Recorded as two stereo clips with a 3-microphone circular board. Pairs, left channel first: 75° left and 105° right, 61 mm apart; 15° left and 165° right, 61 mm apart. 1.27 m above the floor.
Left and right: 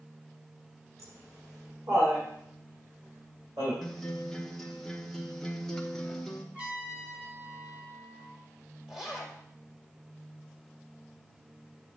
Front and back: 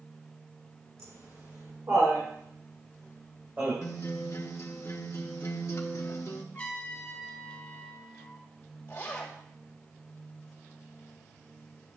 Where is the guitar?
10° right, 1.0 m.